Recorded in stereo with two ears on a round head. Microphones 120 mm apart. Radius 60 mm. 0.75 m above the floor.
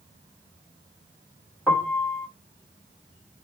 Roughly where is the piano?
Centre.